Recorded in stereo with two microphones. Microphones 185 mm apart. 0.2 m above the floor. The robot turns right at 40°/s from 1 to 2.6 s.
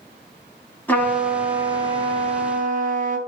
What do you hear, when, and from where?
0.9 s a trumpet: 170° left, 2 m; by 3.2 s 125° right, 2 m